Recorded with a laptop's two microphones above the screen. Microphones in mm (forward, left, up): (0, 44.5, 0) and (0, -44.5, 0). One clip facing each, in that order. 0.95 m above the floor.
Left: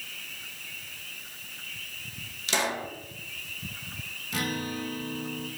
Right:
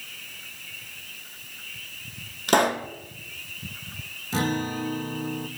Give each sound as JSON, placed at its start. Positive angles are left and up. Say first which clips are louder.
{"t": 2.5, "sound": "a pop", "louder": "right 9 dB", "side_deg": -50, "distance_m": 0.7}
{"t": 4.3, "sound": "a guitar", "louder": "right 6 dB", "side_deg": -30, "distance_m": 0.7}